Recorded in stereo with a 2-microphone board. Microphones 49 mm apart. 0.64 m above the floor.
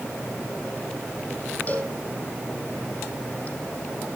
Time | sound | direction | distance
1.7 | a cowbell | 30° left (ahead or behind) | 5.5 m